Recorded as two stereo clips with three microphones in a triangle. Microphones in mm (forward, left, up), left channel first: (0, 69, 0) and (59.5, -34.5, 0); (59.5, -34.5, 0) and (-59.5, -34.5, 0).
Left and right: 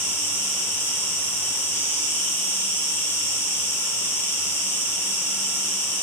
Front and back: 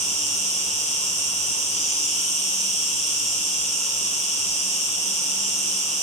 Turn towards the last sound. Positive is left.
turn(degrees=-170)